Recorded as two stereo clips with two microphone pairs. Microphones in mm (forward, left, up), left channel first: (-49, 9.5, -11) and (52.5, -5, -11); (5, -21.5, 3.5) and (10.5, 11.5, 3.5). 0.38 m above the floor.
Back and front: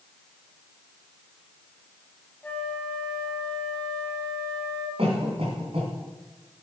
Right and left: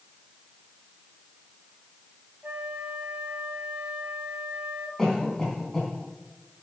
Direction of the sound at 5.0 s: 25° right.